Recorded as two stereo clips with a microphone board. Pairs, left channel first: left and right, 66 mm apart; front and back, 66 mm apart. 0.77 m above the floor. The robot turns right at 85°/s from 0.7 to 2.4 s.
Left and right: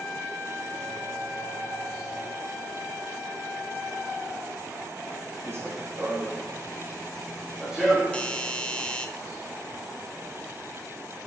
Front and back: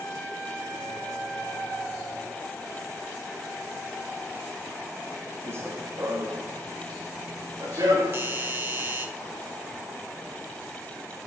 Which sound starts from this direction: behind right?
Running footsteps, at 5.5 s.